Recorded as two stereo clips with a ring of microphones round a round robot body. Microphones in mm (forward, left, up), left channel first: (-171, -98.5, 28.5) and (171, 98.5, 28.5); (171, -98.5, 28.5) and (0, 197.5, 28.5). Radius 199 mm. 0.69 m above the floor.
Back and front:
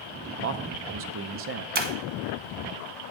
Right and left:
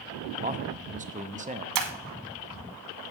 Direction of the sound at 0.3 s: 65° left.